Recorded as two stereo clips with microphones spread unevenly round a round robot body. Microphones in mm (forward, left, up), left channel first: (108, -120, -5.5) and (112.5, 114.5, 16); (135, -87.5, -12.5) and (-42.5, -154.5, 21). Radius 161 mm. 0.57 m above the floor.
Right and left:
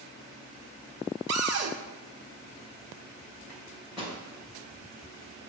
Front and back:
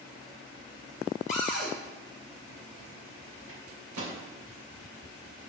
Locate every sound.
1.3 s a cupboard door: 75° left, 1.3 m
3.5 s a microwave: straight behind, 2.5 m